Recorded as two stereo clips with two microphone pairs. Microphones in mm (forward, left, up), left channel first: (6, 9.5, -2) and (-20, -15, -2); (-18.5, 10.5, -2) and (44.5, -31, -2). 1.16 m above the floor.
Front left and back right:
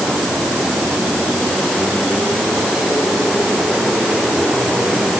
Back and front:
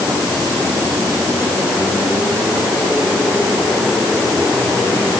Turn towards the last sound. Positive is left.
No sound to turn to.